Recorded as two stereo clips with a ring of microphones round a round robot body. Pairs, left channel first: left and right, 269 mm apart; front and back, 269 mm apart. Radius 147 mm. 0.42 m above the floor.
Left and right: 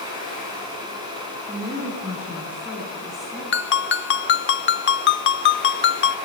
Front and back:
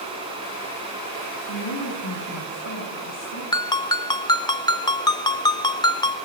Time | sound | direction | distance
1.5 | a woman speaking | 15° right | 4 m
3.5 | a ringtone | 70° left | 0.8 m